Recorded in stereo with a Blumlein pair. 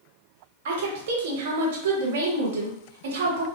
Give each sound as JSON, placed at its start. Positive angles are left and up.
{"t": 0.7, "sound": "a woman speaking", "azimuth_deg": -55, "distance_m": 0.9}